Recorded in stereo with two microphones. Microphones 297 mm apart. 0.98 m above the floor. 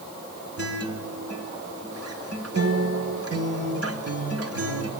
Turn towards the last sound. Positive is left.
turn(degrees=-50)  # may be behind; listen again after turning